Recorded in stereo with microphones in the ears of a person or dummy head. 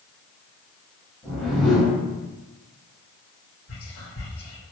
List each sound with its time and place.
1.2 s a whoosh: centre (ahead or behind), 1.2 m
3.7 s whispering: 75° left (ahead or behind), 1.9 m